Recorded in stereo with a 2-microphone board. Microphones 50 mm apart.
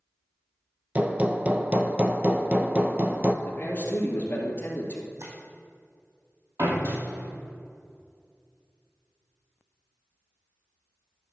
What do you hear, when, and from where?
0.9 s hammering: 30° right (ahead or behind), 0.6 m
3.5 s a man speaking: 40° left (ahead or behind), 2.5 m
5.2 s tapping: 75° right (ahead or behind), 3.5 m
6.6 s a door slam: 70° right (ahead or behind), 3.5 m